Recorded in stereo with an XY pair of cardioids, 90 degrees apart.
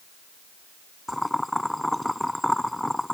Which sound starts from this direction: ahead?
Boiling, at 1.1 s.